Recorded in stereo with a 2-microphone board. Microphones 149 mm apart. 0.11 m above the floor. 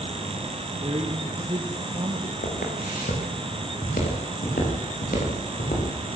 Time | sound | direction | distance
0.8 | a man speaking | 35° right (ahead or behind) | 3.5 m
2.4 | footsteps | 75° left (ahead or behind) | 9.5 m